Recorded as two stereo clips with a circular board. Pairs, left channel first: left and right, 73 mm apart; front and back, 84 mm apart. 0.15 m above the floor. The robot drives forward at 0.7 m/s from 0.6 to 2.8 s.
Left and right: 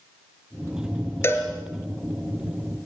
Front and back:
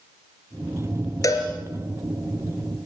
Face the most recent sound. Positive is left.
turn(degrees=60)